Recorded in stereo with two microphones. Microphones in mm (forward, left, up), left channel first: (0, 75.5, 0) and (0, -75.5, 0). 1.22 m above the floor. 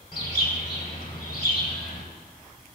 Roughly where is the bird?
Left.